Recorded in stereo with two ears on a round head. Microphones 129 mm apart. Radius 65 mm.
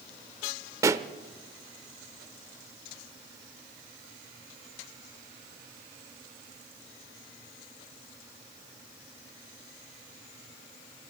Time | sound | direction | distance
0.8 | a pop | 20° right (ahead or behind) | 0.6 m